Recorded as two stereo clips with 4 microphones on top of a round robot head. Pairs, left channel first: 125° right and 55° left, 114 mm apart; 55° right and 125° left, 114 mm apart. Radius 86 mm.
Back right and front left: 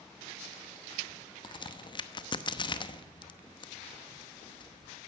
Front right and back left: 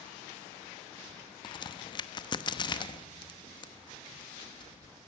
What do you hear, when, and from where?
1.4 s a crack: 90° right, 1.0 m